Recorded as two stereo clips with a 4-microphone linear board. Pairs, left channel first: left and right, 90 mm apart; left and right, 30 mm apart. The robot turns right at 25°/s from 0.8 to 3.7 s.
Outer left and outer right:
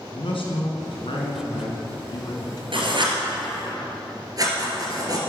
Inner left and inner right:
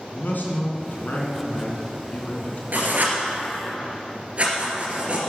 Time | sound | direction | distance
0.1 | a man speaking | 90° left | 3 m
2.7 | writing | 65° right (ahead or behind) | 2.5 m